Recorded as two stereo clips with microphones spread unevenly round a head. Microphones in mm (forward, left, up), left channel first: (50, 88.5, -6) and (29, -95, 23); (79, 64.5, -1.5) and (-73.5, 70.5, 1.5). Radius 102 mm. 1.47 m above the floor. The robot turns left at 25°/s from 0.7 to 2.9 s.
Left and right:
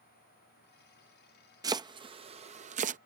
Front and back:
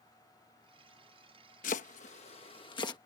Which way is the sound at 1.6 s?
35° right.